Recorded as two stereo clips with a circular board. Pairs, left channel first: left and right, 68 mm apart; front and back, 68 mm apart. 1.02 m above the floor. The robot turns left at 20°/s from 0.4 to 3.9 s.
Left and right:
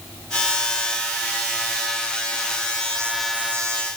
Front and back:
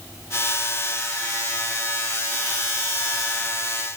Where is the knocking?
I don't hear knocking.